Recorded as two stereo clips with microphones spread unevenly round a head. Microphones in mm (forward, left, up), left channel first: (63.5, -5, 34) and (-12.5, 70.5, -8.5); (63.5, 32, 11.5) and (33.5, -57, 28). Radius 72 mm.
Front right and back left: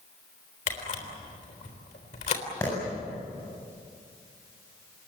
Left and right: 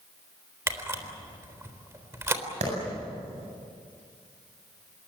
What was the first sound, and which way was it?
A camera shutter, 50° right.